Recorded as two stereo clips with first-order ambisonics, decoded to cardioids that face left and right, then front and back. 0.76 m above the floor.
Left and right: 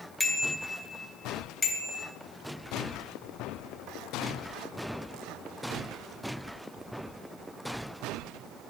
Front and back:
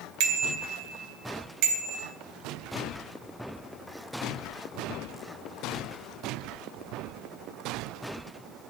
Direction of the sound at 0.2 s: 170° left.